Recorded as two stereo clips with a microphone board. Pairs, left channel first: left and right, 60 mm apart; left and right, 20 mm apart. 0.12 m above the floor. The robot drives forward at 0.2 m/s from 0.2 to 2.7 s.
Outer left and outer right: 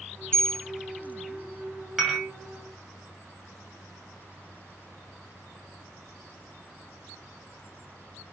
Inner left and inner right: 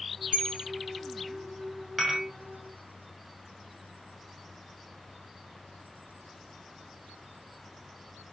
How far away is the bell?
About 2.5 m.